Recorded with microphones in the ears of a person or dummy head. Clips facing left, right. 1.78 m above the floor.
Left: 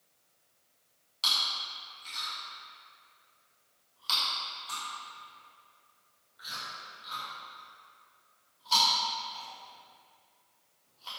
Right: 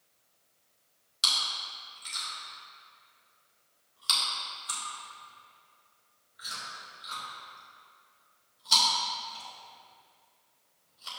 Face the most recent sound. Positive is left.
turn(degrees=-25)  # may be behind; listen again after turning